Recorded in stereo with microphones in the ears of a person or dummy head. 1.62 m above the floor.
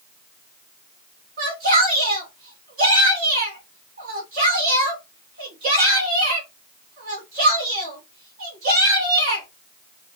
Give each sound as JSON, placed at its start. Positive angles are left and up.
{"t": 1.4, "sound": "a shout", "side_deg": -50, "distance_m": 1.7}